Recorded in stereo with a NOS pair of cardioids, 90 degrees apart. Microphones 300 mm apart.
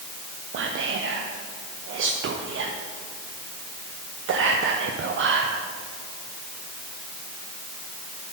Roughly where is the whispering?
Ahead right.